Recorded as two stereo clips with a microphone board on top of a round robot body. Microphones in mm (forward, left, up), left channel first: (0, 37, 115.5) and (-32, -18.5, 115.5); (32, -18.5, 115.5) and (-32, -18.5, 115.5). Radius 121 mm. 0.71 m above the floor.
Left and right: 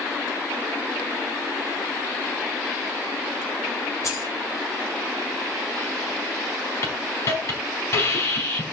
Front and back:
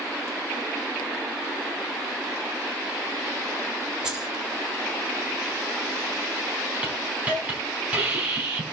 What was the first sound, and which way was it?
Keys jangling, 100° left.